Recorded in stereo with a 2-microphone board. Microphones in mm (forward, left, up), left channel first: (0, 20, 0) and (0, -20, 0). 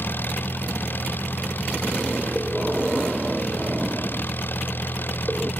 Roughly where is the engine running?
Left.